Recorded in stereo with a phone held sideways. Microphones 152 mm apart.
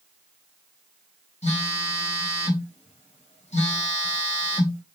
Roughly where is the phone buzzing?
Left.